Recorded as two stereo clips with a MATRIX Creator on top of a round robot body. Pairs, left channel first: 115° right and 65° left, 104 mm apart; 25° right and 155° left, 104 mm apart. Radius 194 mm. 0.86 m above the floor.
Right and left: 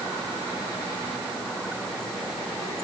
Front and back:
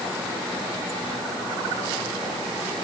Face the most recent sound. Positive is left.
No sound to turn to.